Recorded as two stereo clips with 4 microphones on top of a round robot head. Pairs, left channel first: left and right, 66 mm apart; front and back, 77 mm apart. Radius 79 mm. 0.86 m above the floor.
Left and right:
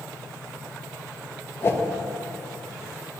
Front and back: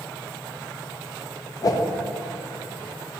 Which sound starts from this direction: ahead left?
A whoosh, at 1.6 s.